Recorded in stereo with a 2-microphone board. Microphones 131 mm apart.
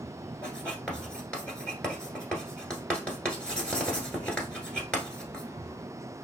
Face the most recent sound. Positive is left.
turn(degrees=10)  # may be behind; listen again after turning